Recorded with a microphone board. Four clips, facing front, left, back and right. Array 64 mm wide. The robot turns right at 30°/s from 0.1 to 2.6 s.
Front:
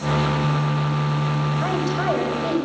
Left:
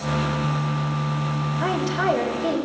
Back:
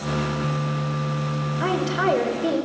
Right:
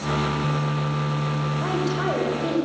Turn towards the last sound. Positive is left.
turn(degrees=-175)